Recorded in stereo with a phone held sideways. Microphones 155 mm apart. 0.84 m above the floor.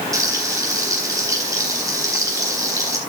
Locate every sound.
0.1 s frying: 20° right (ahead or behind), 4 m